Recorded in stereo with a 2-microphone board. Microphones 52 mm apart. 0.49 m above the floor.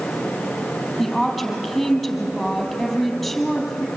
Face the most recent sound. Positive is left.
turn(degrees=0)  # may be behind; listen again after turning